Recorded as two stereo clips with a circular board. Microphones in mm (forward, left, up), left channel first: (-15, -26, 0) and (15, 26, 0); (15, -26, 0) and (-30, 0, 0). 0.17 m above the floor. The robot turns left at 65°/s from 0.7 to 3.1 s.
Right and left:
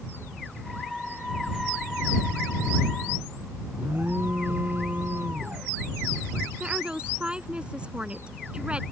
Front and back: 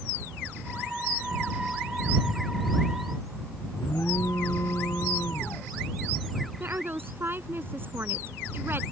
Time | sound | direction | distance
3.7 | an alarm | 5° left | ?
6.6 | a woman speaking | 125° left | ?